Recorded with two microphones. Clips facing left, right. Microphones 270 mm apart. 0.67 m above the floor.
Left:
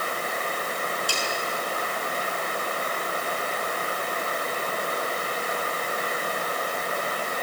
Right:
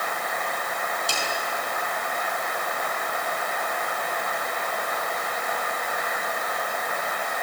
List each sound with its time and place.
1.1 s a snare drum: 25° right (ahead or behind), 6 m